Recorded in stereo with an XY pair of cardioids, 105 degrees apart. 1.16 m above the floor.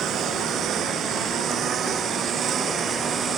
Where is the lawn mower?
70° right; by 3.4 s 55° right.